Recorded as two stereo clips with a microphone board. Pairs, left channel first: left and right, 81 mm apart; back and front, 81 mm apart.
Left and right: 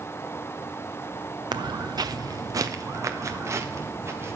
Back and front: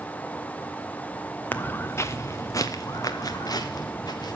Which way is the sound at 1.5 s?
115° right.